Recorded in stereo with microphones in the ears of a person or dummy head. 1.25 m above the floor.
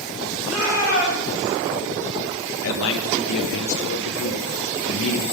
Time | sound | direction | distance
0.5 | a shout | centre (ahead or behind) | 6 m
2.6 | a man speaking | 75° left (ahead or behind) | 1.0 m